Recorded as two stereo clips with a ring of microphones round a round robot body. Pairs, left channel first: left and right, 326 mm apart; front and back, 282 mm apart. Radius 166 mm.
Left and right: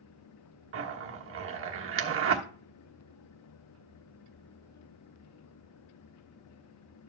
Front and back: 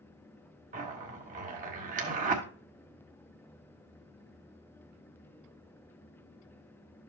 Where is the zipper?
125° right, 1.3 m.